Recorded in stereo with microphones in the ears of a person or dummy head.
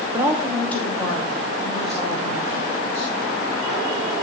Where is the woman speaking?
20° right (ahead or behind), 0.9 m; by 3.1 s 40° left (ahead or behind), 2.5 m.